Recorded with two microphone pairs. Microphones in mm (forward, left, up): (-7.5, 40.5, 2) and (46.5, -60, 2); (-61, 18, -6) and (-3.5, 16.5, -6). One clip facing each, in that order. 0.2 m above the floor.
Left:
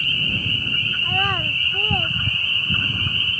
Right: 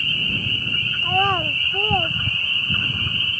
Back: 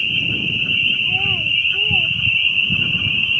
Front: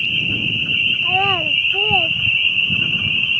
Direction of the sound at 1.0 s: Straight ahead.